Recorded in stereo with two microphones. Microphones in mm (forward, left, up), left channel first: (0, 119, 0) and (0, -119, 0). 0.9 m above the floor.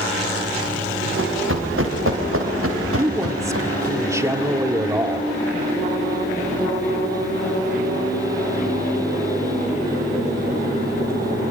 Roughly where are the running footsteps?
Right.